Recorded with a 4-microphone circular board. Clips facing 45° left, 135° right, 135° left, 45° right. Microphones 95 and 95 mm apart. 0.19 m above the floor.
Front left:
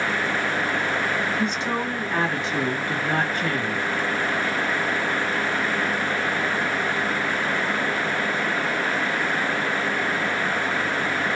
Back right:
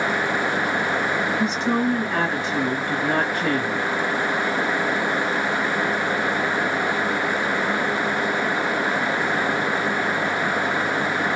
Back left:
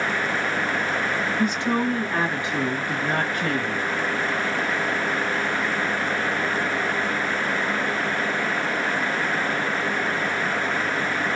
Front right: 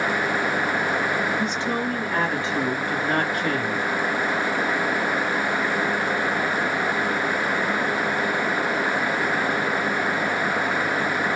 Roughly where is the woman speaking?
Behind left.